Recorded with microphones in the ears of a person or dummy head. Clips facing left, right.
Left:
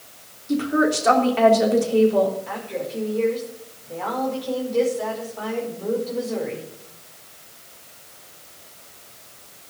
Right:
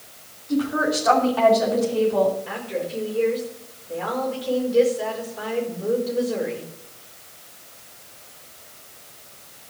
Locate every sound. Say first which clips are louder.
0.5 s a woman speaking: left 2 dB; 30° left (ahead or behind), 3.5 m
2.5 s a woman speaking: right 1 dB; 10° right (ahead or behind), 5 m